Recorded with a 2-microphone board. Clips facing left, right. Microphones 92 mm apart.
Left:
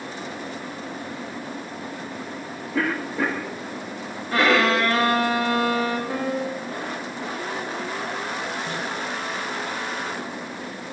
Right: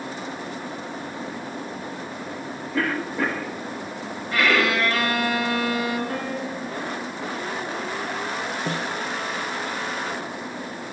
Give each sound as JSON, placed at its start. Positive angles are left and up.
{"t": 2.7, "sound": "a cough", "side_deg": 5, "distance_m": 2.5}
{"t": 4.3, "sound": "a violin", "side_deg": 35, "distance_m": 5.0}
{"t": 6.1, "sound": "a piano", "side_deg": 15, "distance_m": 7.0}
{"t": 8.7, "sound": "a snare drum", "side_deg": -85, "distance_m": 3.0}